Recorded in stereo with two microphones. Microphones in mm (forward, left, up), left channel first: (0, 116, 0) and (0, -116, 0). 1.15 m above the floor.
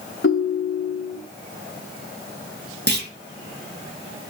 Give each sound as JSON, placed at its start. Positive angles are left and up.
{"t": 0.2, "sound": "a ringtone", "side_deg": 65, "distance_m": 0.6}
{"t": 2.9, "sound": "a clunk", "side_deg": -45, "distance_m": 0.7}